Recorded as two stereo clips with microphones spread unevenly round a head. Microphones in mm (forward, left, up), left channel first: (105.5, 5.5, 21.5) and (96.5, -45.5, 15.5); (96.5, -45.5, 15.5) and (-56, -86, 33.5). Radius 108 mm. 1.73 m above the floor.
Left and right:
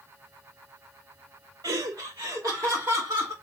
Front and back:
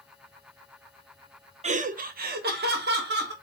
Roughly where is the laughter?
Behind right.